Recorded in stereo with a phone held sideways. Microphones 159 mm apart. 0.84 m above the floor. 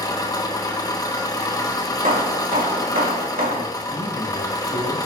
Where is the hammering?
60° right (ahead or behind), 1.4 m.